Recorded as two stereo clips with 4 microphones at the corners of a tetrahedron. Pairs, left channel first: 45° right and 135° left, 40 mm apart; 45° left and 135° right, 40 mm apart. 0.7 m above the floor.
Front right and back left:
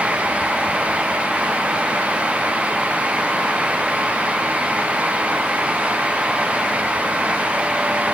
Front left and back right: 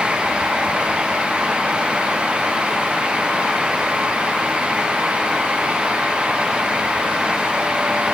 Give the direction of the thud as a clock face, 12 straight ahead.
I don't hear a thud.